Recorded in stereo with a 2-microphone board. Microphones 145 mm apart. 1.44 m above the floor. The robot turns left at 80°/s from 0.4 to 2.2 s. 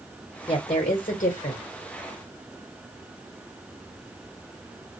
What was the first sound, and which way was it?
A woman speaking, 145° left.